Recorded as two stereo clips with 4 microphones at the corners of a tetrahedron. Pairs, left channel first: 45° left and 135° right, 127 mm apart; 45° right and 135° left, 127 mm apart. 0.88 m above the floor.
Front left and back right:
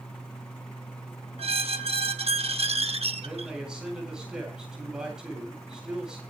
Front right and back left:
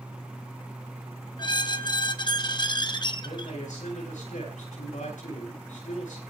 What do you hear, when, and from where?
1.4 s a squeak: 100° right, 1.0 m
3.2 s a man speaking: 50° right, 9 m